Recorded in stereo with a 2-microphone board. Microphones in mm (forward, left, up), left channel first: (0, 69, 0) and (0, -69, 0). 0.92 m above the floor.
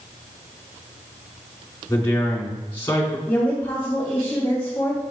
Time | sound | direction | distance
1.9 | a man speaking | 20° left (ahead or behind) | 2.5 m
3.3 | a woman speaking | 10° left (ahead or behind) | 2 m